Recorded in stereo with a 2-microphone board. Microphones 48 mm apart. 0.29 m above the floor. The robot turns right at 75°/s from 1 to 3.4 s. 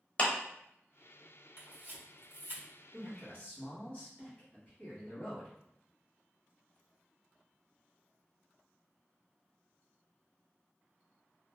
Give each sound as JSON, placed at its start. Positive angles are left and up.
{"t": 0.2, "sound": "a clap", "side_deg": 25, "distance_m": 0.8}
{"t": 1.6, "sound": "a camera shutter", "side_deg": -50, "distance_m": 1.7}
{"t": 2.9, "sound": "a man speaking", "azimuth_deg": 5, "distance_m": 1.4}